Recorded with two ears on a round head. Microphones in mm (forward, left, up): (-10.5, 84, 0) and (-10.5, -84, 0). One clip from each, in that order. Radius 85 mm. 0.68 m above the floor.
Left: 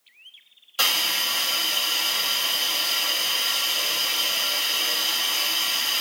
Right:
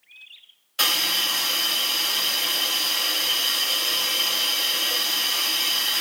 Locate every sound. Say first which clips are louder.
0.8 s a hiss: right 1 dB; 15° left (ahead or behind), 2 m